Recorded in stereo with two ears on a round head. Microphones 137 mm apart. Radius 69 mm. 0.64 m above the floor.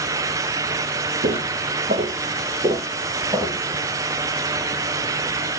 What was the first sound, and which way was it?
Footsteps, 45° right (ahead or behind).